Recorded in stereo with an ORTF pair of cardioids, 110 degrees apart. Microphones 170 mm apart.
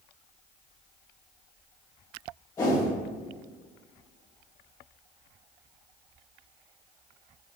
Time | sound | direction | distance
2.6 | a whoosh | 20° left | 1.8 m